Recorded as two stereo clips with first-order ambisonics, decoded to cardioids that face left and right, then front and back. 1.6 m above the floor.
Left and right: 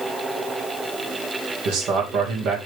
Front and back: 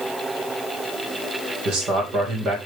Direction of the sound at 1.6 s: 130° right.